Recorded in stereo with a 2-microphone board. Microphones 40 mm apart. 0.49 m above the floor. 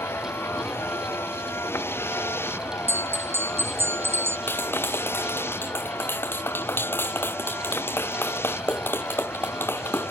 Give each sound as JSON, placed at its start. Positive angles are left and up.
{"t": 0.0, "sound": "a vehicle", "side_deg": 80}
{"t": 2.9, "sound": "a bell", "side_deg": -80}
{"t": 4.5, "sound": "a clap", "side_deg": 65}